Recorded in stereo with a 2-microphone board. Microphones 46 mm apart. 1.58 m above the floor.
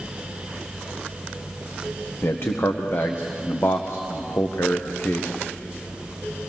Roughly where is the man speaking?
Left.